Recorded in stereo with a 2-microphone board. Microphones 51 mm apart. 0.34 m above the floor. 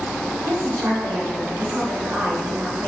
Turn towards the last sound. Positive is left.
turn(degrees=-45)  # may be behind; listen again after turning